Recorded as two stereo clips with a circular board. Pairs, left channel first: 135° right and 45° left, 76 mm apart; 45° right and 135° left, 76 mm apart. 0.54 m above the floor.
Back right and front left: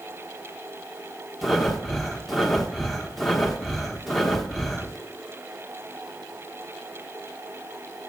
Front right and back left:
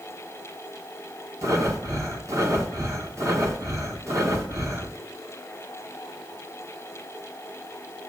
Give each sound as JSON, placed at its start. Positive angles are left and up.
{"t": 1.4, "sound": "breathing", "azimuth_deg": 135, "distance_m": 0.9}